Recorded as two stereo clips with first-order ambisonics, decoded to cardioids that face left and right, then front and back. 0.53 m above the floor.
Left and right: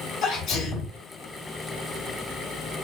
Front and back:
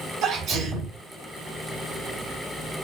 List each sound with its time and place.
0.2 s a sneeze: 145° left, 2.5 m